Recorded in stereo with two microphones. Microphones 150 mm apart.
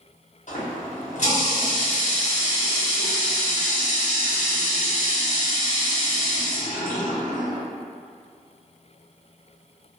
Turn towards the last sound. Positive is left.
turn(degrees=55)  # may be behind; listen again after turning